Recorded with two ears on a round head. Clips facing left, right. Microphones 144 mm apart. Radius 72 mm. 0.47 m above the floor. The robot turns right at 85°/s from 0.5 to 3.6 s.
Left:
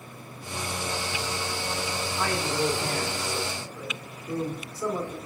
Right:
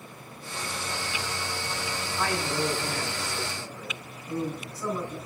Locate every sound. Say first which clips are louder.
2.2 s a man speaking: left 1 dB; 25° left, 1.4 m; by 5.2 s 145° left, 1.4 m